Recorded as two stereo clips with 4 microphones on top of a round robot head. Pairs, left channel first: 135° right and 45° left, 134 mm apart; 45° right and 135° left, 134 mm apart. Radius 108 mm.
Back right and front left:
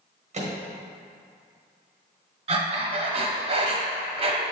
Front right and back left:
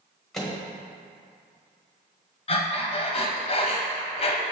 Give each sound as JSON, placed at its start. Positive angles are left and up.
{"t": 0.3, "sound": "a microwave", "azimuth_deg": 40, "distance_m": 1.3}
{"t": 2.5, "sound": "breathing", "azimuth_deg": 0, "distance_m": 0.8}